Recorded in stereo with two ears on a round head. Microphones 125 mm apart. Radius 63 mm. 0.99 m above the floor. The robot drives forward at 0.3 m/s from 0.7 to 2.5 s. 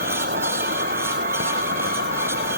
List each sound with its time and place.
0.0 s an insect: 70° right (ahead or behind)